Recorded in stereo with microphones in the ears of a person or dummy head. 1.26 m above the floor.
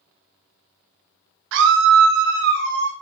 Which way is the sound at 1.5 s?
65° right (ahead or behind).